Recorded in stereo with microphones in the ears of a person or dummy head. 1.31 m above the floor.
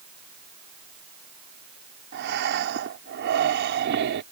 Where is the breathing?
65° right (ahead or behind).